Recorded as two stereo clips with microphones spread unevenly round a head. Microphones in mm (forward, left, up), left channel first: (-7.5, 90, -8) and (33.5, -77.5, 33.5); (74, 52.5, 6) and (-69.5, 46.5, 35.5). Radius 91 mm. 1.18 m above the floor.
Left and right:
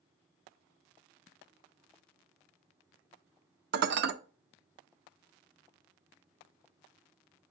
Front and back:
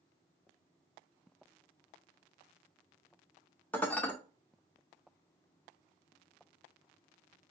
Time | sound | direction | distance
3.7 | dishes clattering | 85° right | 0.5 m